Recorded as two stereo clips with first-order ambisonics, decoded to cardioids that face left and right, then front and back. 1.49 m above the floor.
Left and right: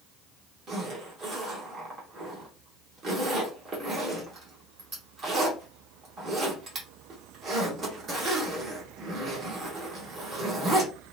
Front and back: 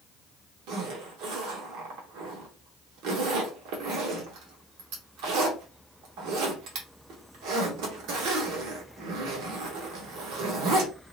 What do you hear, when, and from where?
0.7 s a zipper: 155° right, 1.0 m